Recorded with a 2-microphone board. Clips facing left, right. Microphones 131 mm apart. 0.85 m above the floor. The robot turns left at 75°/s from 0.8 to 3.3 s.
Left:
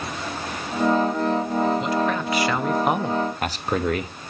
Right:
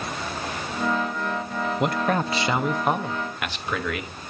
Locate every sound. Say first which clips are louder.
1.8 s a man speaking: even; 105° right, 0.7 m; by 4.1 s 140° left, 0.7 m